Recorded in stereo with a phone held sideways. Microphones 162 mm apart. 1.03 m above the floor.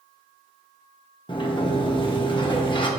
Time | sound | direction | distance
1.3 | a sliding door | 30° left (ahead or behind) | 1.4 m